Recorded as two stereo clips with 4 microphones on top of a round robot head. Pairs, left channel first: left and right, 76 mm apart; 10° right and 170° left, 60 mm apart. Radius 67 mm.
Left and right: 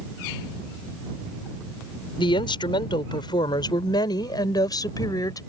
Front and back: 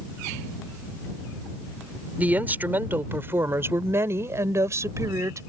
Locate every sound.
2.2 s a woman speaking: 105° left; by 5.4 s 130° left